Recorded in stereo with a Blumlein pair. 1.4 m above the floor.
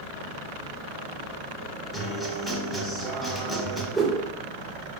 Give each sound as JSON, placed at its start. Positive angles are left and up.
{"t": 1.9, "sound": "a guitar", "azimuth_deg": 5, "distance_m": 0.7}
{"t": 3.9, "sound": "a whoosh", "azimuth_deg": -5, "distance_m": 0.6}